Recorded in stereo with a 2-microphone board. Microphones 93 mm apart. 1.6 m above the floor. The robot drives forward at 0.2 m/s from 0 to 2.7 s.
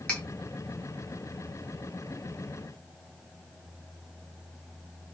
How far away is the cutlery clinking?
About 0.8 m.